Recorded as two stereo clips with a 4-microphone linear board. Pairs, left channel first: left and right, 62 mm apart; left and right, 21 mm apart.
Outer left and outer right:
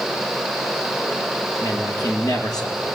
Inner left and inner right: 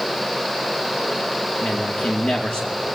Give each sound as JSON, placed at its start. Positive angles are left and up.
{"t": 1.6, "sound": "a man speaking", "side_deg": 75, "distance_m": 5.5}